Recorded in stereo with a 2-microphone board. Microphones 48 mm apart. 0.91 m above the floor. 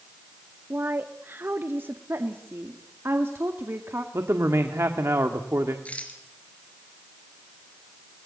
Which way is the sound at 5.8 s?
30° left (ahead or behind).